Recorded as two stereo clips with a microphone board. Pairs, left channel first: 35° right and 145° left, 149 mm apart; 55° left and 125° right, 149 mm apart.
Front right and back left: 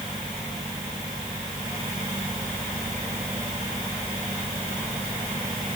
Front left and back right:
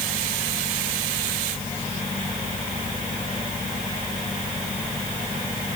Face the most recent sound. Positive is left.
No sound to turn to.